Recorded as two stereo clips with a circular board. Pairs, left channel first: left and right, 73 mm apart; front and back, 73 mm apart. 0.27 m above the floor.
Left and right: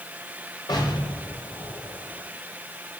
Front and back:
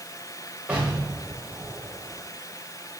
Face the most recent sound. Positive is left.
turn(degrees=115)